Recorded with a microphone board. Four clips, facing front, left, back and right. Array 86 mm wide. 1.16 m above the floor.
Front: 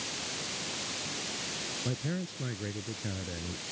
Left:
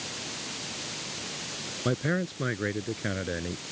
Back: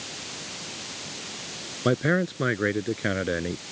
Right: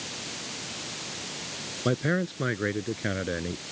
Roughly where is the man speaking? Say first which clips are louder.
Right 2 dB, back 14 dB; behind.